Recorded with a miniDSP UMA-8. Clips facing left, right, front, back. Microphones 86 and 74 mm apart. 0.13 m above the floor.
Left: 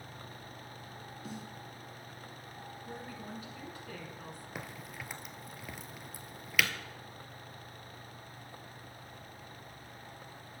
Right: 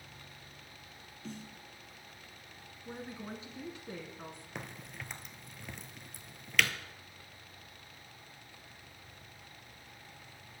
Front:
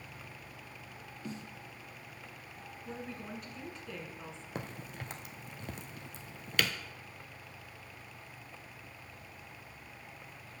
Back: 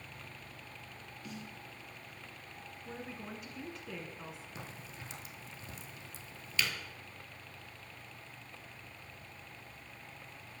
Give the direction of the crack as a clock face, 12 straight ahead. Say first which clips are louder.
Left 1 dB, front 5 dB; 12 o'clock.